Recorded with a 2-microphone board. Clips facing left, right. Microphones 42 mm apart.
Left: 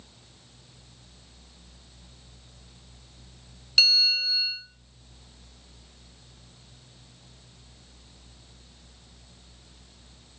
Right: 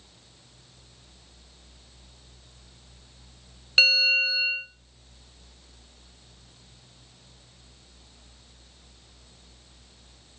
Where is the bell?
30° right (ahead or behind), 0.6 m.